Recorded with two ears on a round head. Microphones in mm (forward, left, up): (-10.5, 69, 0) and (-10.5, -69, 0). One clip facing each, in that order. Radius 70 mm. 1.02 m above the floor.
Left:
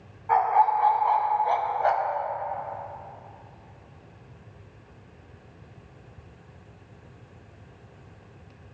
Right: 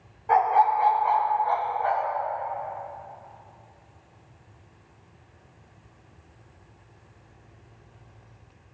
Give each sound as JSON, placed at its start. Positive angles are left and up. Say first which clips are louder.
{"t": 0.3, "sound": "a dog barking", "louder": "right 1 dB", "side_deg": -35, "distance_m": 1.1}